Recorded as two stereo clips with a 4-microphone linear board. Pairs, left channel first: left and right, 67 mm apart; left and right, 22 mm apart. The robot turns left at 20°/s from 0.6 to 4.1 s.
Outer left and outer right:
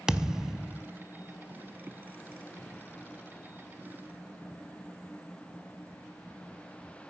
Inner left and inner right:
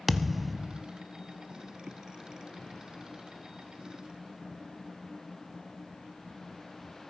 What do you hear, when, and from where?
0.1 s a thud: 10° right (ahead or behind), 0.7 m